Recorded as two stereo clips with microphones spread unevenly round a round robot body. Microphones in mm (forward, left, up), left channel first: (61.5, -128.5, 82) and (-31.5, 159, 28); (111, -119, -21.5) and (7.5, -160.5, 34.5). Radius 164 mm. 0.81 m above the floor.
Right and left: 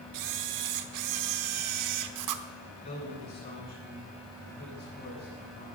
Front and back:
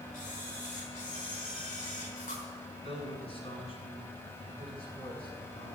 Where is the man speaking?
5° right, 7.5 m.